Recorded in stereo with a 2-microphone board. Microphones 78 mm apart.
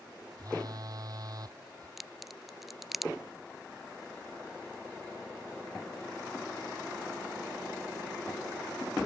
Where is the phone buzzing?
50° right (ahead or behind).